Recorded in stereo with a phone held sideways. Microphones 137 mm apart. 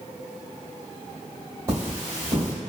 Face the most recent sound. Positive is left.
turn(degrees=-20)  # may be behind; listen again after turning